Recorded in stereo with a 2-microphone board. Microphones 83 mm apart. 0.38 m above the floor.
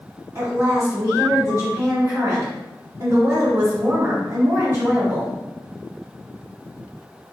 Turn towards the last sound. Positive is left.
turn(degrees=-40)  # may be behind; listen again after turning